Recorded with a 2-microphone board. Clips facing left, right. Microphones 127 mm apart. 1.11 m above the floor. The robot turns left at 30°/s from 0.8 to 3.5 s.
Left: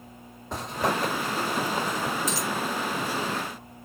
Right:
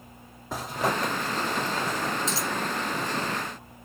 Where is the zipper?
Centre (ahead or behind), 0.7 m; by 2.2 s 25° left (ahead or behind), 0.7 m.